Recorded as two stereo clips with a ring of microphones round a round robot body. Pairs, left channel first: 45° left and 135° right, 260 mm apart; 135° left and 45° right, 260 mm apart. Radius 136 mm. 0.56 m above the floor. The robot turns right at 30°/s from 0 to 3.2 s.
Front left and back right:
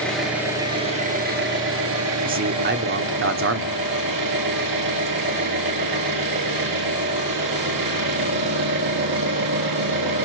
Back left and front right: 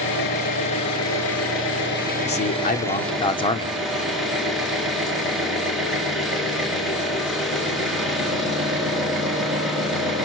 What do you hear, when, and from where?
0.0 s an engine running: 130° left, 6 m; by 10.2 s 135° right, 6 m
2.2 s a man speaking: 175° left, 1.8 m; by 3.8 s 155° right, 1.8 m